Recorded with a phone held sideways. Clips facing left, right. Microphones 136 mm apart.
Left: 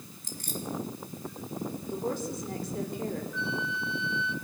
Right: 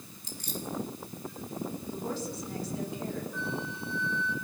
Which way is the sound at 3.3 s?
50° right (ahead or behind).